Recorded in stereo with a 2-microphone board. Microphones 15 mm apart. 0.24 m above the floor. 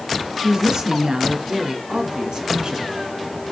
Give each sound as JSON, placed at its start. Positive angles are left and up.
{"t": 0.4, "sound": "a woman speaking", "side_deg": -60, "distance_m": 3.5}